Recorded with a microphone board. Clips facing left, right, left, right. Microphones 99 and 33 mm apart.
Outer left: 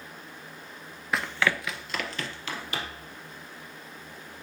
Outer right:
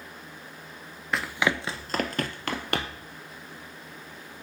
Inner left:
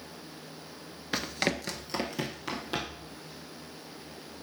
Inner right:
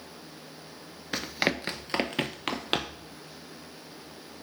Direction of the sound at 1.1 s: Centre (ahead or behind).